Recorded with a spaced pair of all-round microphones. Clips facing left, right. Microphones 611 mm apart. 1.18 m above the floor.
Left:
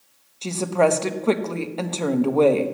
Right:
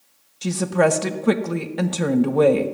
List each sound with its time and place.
0.4 s a woman speaking: 40° right (ahead or behind), 1.0 m